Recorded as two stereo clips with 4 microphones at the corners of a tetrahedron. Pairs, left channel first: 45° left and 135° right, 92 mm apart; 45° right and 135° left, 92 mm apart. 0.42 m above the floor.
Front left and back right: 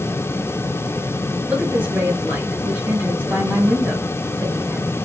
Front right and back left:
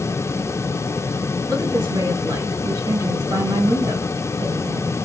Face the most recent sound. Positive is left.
turn(degrees=155)